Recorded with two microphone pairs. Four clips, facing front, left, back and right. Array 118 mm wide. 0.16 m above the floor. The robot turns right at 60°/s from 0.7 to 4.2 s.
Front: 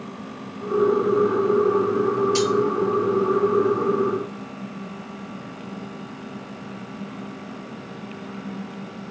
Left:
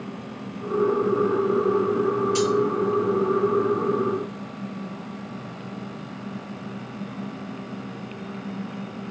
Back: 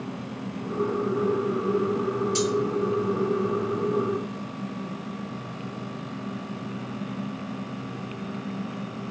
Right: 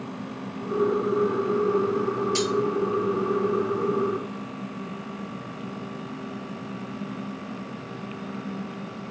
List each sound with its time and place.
2.4 s cutlery clinking: 65° right, 1.9 m; by 2.5 s 55° right, 1.9 m